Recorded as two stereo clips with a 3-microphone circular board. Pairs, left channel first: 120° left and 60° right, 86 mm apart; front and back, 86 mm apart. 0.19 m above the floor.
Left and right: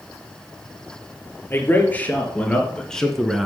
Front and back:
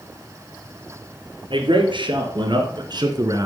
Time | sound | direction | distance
1.5 | a man speaking | 175° right | 3 m